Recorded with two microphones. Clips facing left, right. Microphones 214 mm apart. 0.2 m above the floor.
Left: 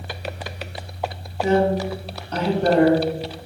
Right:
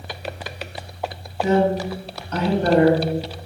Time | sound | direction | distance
1.4 | a woman speaking | 30° left (ahead or behind) | 1.8 m